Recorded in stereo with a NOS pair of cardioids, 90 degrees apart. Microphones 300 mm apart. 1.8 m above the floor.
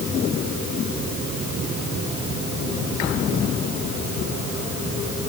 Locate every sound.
Only background noise.